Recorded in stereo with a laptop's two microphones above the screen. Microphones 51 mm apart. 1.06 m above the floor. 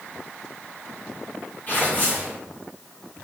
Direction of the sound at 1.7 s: 40° left (ahead or behind).